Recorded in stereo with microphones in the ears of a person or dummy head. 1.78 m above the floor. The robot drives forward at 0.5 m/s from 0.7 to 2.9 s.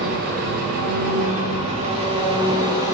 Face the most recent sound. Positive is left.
turn(degrees=-25)  # may be behind; listen again after turning